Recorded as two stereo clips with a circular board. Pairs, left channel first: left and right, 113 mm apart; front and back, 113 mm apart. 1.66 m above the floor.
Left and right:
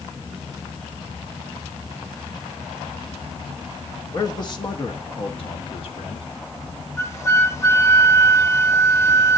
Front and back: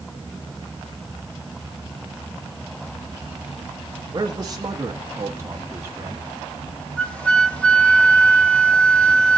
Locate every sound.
4.1 s a man speaking: 140° left, 0.9 m; by 6.3 s 115° left, 1.9 m
7.0 s a flute: 65° left, 1.1 m